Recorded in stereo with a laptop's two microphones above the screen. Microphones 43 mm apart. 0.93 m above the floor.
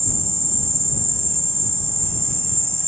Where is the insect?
80° right.